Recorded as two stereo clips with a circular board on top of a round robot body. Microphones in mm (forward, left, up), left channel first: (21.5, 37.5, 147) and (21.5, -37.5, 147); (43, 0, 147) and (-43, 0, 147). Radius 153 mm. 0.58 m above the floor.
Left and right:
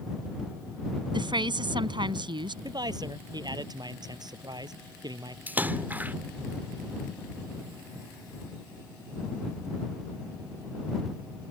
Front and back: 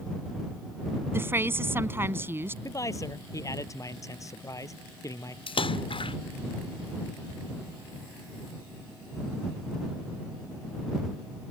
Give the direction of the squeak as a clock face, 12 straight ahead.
I don't hear a squeak.